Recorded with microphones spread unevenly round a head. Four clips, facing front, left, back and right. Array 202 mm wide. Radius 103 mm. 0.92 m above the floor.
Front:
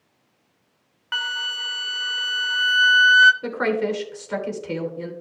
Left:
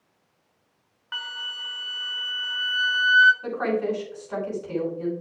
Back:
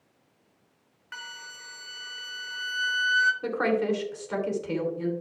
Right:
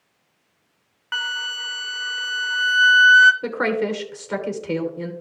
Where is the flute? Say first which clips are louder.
Right 9 dB, front 13 dB; 20° right, 0.6 m.